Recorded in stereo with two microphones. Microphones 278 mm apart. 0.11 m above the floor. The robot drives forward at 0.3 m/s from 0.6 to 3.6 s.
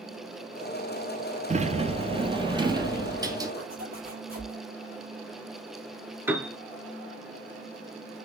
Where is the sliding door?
25° right (ahead or behind), 0.5 m; by 3.5 s 15° right (ahead or behind), 1.1 m.